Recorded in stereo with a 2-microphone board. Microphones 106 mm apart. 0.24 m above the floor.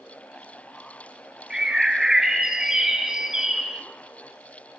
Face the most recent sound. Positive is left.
turn(degrees=-5)  # may be behind; listen again after turning